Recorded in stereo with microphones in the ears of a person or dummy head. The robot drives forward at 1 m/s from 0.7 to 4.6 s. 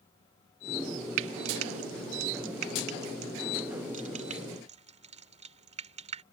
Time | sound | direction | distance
1.2 | frying | 70° right (ahead or behind) | ?